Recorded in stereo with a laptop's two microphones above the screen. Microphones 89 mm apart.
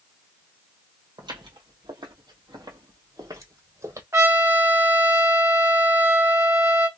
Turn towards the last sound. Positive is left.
turn(degrees=-35)  # may be behind; listen again after turning